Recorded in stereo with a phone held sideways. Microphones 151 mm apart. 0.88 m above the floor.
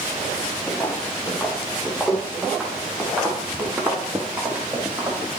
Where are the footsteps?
15° left (ahead or behind), 5 m; by 5.3 s 20° right (ahead or behind), 7.5 m.